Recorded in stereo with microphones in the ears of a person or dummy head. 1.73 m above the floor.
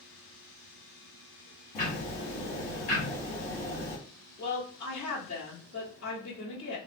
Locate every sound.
1.8 s ticking: 30° left (ahead or behind), 1.1 m
4.4 s a woman speaking: 55° left (ahead or behind), 1.0 m